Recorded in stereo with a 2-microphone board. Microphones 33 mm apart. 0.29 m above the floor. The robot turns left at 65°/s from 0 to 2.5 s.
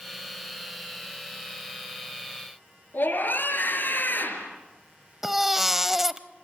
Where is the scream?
65° left (ahead or behind), 4.5 m.